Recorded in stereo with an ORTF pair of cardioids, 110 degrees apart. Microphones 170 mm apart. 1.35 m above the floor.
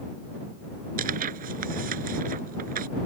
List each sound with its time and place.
1.0 s tearing paper: 55° right